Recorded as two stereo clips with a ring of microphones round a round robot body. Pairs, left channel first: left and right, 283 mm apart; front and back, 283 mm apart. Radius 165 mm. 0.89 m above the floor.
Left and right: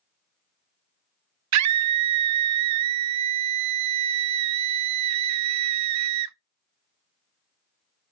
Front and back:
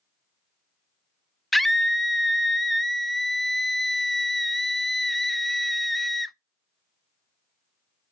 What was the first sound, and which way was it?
A scream, 90° right.